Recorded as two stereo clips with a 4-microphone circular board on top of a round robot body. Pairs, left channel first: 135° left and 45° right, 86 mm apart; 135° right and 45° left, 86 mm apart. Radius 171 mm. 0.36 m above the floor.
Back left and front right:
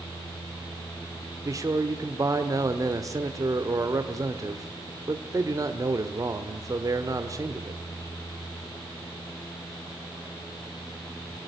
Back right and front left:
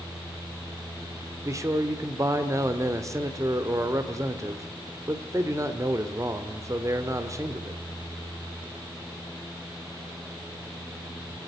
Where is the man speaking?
Straight ahead, 1.5 m.